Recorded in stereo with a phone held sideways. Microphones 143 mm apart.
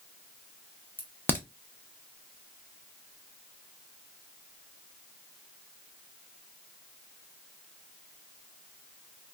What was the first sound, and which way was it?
A crack, 15° left (ahead or behind).